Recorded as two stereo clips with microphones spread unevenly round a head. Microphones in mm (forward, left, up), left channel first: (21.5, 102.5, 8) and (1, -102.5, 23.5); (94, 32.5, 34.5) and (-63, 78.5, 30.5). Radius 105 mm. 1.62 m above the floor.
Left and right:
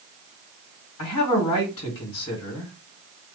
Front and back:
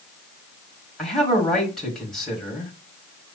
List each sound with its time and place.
1.0 s a man speaking: 70° left, 2.5 m